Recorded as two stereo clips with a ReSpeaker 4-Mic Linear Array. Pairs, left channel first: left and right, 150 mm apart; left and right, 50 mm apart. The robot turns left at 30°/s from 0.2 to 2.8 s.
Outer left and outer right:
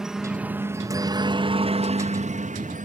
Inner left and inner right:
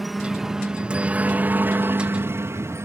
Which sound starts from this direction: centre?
A helicopter, at 0.0 s.